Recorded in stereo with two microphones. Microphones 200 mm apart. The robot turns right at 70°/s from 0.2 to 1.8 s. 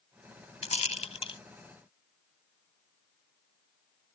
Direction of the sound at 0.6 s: 35° left (ahead or behind).